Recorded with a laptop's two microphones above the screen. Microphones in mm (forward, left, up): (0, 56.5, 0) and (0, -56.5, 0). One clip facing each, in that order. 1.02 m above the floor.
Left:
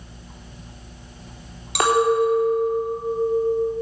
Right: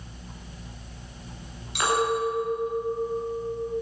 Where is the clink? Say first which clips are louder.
Left 7 dB; 80° left, 1.4 m.